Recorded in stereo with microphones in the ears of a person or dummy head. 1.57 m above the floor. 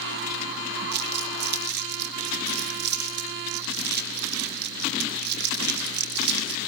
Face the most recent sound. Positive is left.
turn(degrees=-55)  # may be behind; listen again after turning